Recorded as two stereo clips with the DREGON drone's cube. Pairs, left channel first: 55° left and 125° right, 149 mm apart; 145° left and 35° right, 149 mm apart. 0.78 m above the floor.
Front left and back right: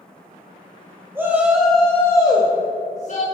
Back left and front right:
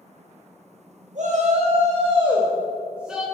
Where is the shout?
50° right, 1.5 m; by 3.2 s 55° left, 1.5 m.